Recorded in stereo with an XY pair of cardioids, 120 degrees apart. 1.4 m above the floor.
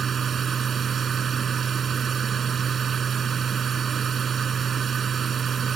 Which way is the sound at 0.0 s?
40° right.